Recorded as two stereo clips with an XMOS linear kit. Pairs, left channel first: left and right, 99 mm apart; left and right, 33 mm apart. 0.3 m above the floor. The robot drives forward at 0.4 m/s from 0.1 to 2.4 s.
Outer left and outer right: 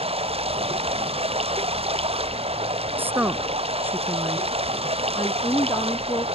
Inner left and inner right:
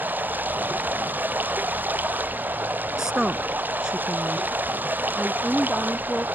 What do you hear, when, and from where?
0.0 s running water: 70° right (ahead or behind)
3.0 s a woman speaking: 20° right (ahead or behind)
5.2 s a woman speaking: 25° left (ahead or behind)